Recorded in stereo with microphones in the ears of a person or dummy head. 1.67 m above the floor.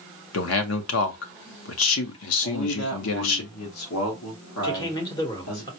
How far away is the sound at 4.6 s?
About 1.0 m.